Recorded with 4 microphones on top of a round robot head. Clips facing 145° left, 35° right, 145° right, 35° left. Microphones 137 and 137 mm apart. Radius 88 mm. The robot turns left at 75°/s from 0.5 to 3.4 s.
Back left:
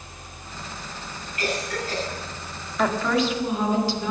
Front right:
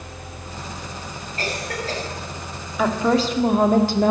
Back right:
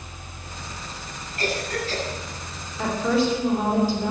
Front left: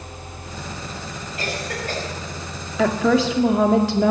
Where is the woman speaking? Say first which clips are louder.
Front right 3 dB, front left 4 dB; 55° left, 1.9 m; by 4.1 s 10° left, 1.9 m.